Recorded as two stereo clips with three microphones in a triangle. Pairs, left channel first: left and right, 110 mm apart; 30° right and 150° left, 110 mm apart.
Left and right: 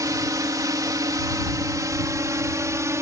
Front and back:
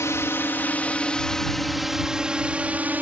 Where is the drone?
70° right; by 3.0 s 140° right.